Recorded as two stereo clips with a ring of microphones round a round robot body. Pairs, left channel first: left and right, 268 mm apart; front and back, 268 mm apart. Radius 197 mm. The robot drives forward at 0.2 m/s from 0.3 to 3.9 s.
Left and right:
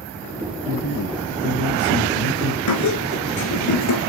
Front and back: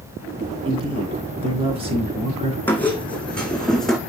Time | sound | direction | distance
0.7 | a man speaking | 110° left | 4.5 m
2.7 | a squeak | 85° left | 3 m